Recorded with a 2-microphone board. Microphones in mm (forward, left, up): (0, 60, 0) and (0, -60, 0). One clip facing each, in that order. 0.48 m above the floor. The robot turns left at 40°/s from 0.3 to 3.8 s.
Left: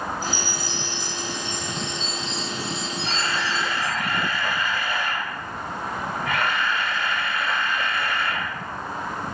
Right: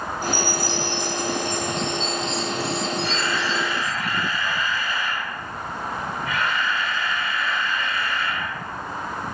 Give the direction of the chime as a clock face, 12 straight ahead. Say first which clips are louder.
Right 5 dB; 11 o'clock.